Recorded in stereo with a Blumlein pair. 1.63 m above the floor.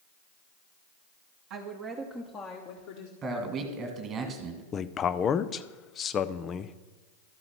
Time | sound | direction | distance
1.5 | a woman speaking | 40° right | 1.4 m
3.2 | a man speaking | 25° right | 1.8 m
4.7 | a man speaking | 25° left | 0.5 m